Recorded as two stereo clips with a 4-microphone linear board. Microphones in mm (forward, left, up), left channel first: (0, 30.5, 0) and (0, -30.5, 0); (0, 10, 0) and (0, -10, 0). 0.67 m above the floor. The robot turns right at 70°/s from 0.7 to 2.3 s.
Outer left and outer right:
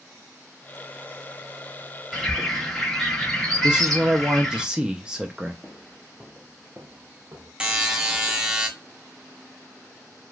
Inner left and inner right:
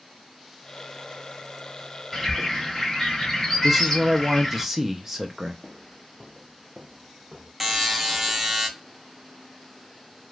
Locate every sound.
2.1 s a bird: 5° right (ahead or behind), 1.2 m; by 4.6 s 10° left (ahead or behind), 1.2 m
3.6 s a man speaking: 15° right (ahead or behind), 0.6 m
5.6 s footsteps: 20° left (ahead or behind), 0.7 m; by 7.5 s 60° right (ahead or behind), 1.2 m
7.6 s a buzzer: 15° right (ahead or behind), 0.7 m